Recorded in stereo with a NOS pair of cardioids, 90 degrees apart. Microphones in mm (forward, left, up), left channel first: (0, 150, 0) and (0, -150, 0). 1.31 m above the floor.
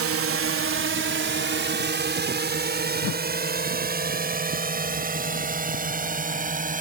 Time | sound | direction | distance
0.0 | a drone | 50° right | ?
3.0 | a whoosh | 55° left | ?